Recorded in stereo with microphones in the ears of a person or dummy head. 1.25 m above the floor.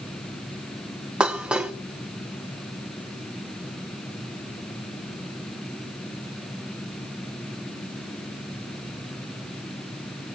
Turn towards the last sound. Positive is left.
turn(degrees=0)  # may be behind; listen again after turning